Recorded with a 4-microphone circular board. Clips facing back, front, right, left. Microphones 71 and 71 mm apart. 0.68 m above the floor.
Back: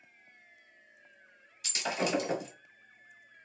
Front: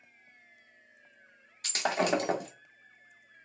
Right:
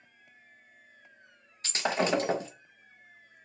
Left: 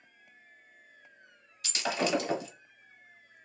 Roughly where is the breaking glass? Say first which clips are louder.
Front 4 dB, right 3 dB; ahead right.